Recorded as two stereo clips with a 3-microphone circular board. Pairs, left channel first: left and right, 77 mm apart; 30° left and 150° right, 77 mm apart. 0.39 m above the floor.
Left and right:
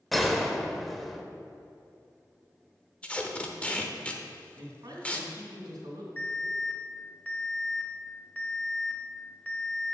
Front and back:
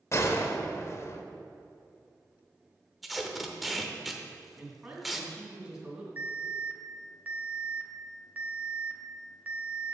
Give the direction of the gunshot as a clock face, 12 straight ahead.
12 o'clock.